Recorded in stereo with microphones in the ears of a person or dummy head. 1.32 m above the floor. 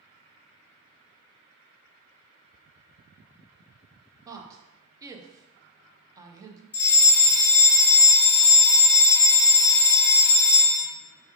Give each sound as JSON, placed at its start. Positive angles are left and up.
{"t": 4.2, "sound": "a woman speaking", "side_deg": -20, "distance_m": 0.7}
{"t": 6.7, "sound": "a fire alarm", "side_deg": 5, "distance_m": 1.7}